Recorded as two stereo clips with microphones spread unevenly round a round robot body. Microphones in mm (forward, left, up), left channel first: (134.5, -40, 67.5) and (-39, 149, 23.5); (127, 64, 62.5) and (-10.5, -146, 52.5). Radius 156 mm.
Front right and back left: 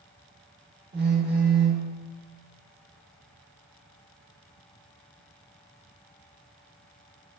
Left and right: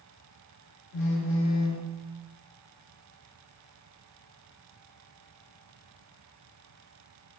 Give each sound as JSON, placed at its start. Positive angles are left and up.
{"t": 0.9, "sound": "a phone buzzing", "azimuth_deg": 80, "distance_m": 1.0}